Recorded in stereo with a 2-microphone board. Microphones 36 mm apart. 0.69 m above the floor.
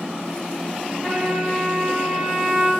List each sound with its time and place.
1.0 s a trumpet: 20° left (ahead or behind), 1.3 m